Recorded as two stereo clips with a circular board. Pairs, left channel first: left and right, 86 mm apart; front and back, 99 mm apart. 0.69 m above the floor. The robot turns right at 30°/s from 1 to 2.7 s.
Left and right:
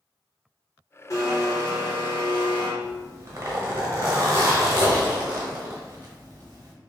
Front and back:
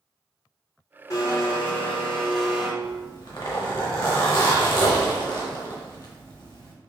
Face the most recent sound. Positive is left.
turn(degrees=-35)